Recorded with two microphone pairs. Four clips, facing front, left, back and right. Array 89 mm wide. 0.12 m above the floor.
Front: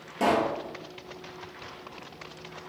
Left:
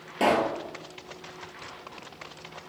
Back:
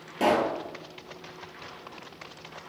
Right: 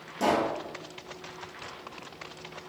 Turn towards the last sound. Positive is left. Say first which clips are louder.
# left 2 dB, back 1 dB
turn(degrees=90)